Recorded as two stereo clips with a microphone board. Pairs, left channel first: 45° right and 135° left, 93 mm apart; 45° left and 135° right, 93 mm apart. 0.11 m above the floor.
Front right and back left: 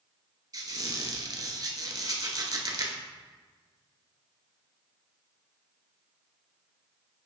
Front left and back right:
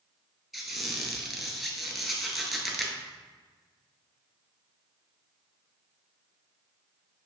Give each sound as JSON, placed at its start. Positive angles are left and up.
{"t": 0.5, "sound": "a squeak", "azimuth_deg": 135, "distance_m": 0.7}